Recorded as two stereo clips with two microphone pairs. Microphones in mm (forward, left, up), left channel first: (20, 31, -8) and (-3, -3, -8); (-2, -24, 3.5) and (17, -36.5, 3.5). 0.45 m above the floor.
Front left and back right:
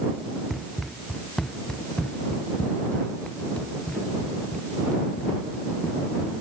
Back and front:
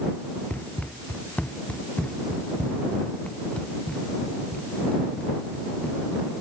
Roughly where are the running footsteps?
Behind left.